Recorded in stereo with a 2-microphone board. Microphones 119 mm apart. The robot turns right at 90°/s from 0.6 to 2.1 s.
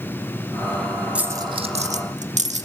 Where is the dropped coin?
10° right (ahead or behind), 1.1 m; by 2.6 s 80° right, 1.1 m.